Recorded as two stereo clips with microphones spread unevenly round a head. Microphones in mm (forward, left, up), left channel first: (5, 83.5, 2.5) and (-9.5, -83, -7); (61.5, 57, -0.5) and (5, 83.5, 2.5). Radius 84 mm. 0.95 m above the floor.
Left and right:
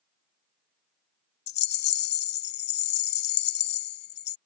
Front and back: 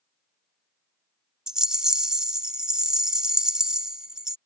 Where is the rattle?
75° left.